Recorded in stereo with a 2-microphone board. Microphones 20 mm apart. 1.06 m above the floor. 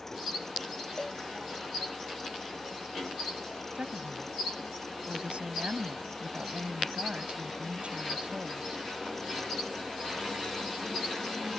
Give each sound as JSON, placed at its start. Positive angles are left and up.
{"t": 1.0, "sound": "a cowbell", "side_deg": 35}
{"t": 3.8, "sound": "a woman speaking", "side_deg": -65}